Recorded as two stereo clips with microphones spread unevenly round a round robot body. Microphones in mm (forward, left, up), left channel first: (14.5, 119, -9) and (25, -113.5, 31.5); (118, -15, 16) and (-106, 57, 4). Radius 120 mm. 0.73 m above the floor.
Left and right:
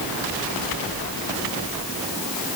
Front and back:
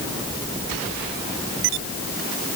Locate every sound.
Only background noise.